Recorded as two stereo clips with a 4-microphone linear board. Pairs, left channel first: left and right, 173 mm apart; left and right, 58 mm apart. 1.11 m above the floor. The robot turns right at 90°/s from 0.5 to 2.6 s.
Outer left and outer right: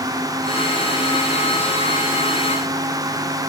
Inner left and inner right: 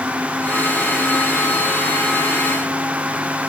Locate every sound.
Only background noise.